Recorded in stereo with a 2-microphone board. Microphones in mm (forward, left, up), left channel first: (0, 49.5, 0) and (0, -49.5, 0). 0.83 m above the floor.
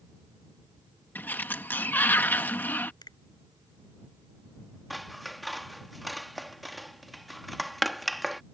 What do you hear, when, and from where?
1.1 s a sliding door: 20° left (ahead or behind)
3.0 s a finger snap: 45° left (ahead or behind)
4.9 s scissors: centre (ahead or behind)